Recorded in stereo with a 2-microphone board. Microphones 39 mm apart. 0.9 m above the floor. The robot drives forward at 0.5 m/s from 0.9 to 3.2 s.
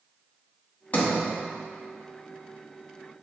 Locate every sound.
0.9 s a sliding door: 40° left (ahead or behind), 1.1 m; by 1.2 s 35° left (ahead or behind), 1.2 m